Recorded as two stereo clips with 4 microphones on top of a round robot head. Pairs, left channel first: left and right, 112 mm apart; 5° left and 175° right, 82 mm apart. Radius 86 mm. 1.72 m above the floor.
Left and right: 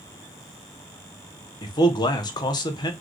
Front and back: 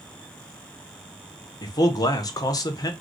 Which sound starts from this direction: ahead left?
A man speaking, at 1.6 s.